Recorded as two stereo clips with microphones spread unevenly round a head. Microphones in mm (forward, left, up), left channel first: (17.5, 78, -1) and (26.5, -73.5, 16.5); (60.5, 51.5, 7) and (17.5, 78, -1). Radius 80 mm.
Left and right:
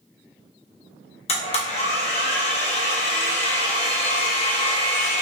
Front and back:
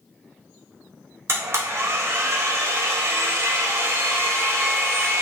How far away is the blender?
About 0.7 m.